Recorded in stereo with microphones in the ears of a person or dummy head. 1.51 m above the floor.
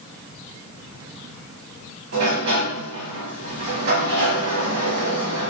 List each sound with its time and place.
2.1 s a sliding door: 50° right (ahead or behind), 1.3 m